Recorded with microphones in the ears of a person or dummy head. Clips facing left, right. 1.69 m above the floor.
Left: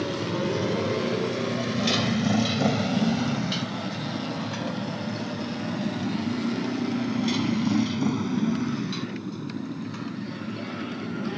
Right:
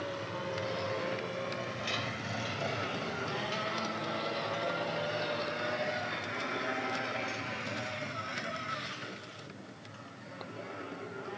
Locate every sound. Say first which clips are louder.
0.0 s a motorcycle: left 11 dB; 65° left (ahead or behind); by 11.4 s 80° left